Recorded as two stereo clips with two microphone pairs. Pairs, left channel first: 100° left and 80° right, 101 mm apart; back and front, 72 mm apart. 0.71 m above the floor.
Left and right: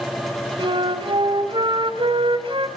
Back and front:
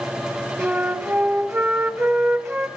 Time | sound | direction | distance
0.6 | a flute | 50° right | 2.0 m